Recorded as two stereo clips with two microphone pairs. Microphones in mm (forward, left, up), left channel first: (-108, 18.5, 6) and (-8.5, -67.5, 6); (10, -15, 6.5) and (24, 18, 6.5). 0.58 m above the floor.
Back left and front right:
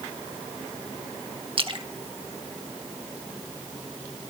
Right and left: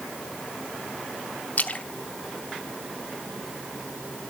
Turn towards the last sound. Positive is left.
turn(degrees=-80)